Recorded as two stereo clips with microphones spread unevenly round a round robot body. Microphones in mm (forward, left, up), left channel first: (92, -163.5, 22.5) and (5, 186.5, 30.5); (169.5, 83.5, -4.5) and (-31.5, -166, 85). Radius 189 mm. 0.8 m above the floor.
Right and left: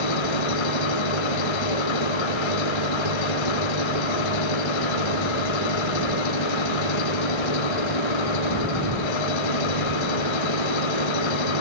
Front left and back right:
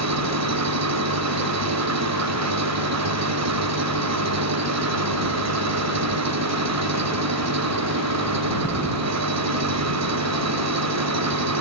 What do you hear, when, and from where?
0.0 s an engine running: 90° right